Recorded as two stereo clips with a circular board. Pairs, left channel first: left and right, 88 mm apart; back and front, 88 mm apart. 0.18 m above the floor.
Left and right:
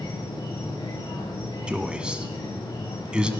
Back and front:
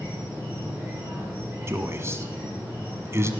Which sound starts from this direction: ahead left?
An insect, at 0.0 s.